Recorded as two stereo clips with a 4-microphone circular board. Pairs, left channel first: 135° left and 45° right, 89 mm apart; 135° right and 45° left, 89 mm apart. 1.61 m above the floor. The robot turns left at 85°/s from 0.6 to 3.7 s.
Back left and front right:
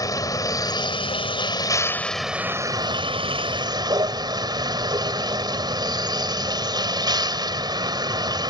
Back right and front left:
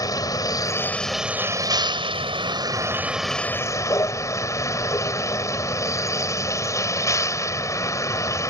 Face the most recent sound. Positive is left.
turn(degrees=-80)